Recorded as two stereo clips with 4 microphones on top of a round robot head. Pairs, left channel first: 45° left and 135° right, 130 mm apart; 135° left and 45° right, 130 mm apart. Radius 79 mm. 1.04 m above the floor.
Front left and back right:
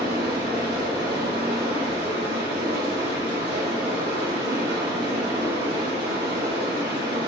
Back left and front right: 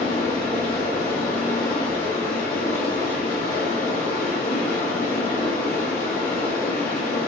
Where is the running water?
175° left, 1.4 m.